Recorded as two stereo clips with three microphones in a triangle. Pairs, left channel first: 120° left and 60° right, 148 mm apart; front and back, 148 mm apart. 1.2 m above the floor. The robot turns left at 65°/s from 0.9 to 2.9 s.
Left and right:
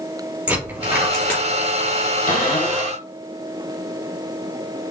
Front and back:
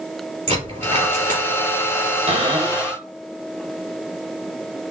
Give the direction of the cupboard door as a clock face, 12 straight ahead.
7 o'clock.